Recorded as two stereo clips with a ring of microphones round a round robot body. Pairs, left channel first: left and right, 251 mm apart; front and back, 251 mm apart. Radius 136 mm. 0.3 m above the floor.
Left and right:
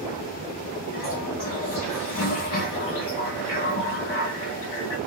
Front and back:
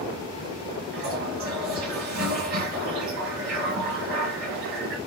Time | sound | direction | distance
0.9 | a toilet flushing | 135° left | 0.9 m